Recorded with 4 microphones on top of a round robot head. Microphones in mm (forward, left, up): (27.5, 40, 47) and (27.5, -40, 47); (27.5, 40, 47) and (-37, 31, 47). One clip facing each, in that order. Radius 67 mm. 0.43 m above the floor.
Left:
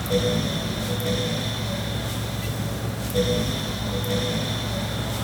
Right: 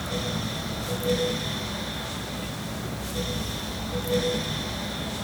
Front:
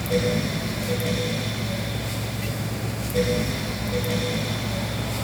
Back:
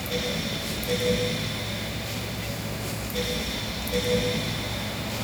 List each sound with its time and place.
Only background noise.